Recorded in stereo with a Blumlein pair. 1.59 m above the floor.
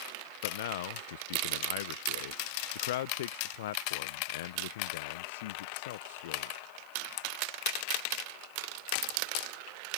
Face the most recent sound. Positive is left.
turn(degrees=55)